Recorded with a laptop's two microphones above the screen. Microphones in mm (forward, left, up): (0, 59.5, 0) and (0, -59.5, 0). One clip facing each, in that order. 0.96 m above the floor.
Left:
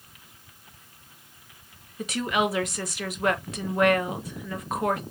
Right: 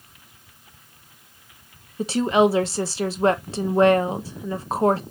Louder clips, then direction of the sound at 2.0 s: Right 8 dB; 30° right (ahead or behind).